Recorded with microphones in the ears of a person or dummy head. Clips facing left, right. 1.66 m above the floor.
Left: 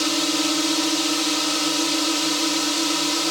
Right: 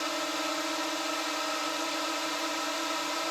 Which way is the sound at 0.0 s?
70° left (ahead or behind).